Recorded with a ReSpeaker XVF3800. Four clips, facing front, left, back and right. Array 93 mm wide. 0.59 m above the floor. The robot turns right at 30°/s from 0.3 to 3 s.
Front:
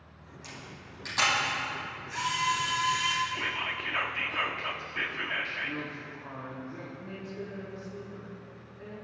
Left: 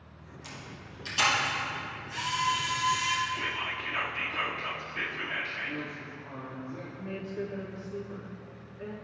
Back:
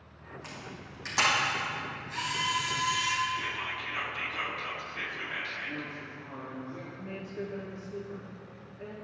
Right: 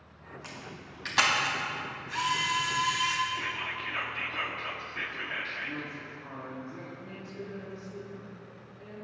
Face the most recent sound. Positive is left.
turn(degrees=105)